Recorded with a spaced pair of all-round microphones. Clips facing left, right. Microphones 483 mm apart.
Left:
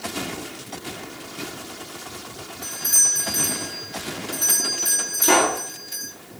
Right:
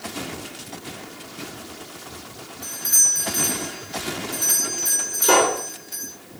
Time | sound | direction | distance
2.6 | a doorbell | 60° left (ahead or behind) | 7.5 m
5.2 | a pop | 85° left | 5.5 m